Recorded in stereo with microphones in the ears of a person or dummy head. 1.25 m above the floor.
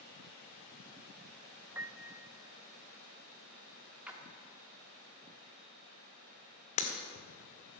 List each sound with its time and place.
1.8 s a piano: 10° right (ahead or behind), 0.7 m
4.1 s a splash: 10° right (ahead or behind), 1.4 m
6.8 s breaking glass: 40° left (ahead or behind), 1.7 m